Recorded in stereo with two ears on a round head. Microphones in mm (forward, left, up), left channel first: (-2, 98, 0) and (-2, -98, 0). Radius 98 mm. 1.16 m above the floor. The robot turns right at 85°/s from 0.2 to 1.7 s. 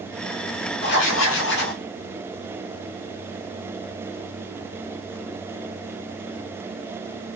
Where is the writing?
55° left, 1.3 m; by 1.8 s 130° left, 1.3 m.